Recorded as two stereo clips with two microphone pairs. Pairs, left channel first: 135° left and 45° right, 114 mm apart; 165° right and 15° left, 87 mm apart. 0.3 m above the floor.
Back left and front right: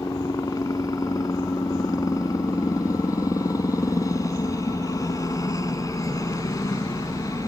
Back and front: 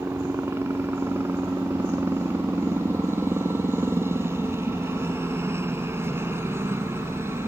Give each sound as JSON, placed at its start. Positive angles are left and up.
{"t": 0.0, "sound": "a helicopter", "azimuth_deg": 75}